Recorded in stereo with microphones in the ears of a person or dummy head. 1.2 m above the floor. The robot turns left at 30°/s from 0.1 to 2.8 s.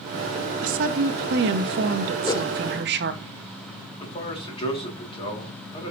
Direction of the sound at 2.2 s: 20° left (ahead or behind).